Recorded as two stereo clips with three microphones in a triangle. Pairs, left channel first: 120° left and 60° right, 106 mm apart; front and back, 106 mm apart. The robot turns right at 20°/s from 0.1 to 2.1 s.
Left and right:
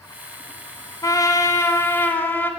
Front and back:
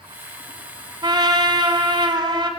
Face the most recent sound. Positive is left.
turn(degrees=-175)